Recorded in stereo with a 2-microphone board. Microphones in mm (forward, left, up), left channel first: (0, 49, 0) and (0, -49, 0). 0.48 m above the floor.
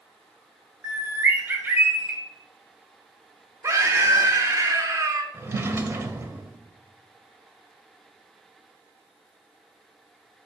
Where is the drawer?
25° right (ahead or behind), 0.8 m.